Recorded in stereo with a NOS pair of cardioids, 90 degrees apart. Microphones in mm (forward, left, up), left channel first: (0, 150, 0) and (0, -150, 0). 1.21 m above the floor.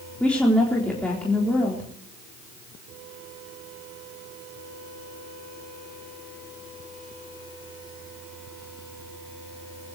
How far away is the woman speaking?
About 4 m.